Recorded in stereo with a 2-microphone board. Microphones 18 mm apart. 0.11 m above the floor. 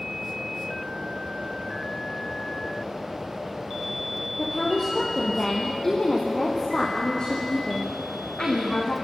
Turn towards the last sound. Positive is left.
turn(degrees=60)  # may be behind; listen again after turning